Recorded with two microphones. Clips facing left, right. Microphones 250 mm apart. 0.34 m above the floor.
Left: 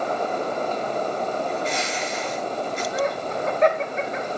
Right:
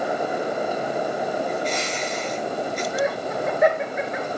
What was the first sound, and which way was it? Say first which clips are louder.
A bird: right 1 dB; 25° left (ahead or behind).